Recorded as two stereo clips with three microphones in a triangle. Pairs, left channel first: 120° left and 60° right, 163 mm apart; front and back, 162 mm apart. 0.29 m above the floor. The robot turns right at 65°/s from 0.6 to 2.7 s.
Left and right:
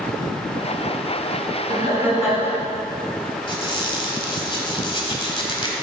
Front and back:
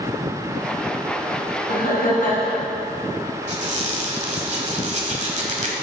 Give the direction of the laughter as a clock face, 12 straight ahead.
12 o'clock.